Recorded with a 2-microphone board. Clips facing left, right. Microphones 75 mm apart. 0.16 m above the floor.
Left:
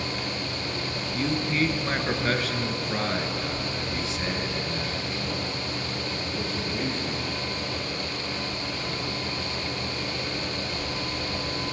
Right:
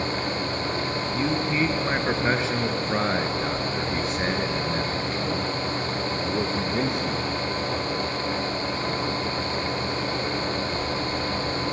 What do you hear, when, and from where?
1.1 s a man speaking: 5° right (ahead or behind), 2 m; by 7.3 s 70° right (ahead or behind), 3 m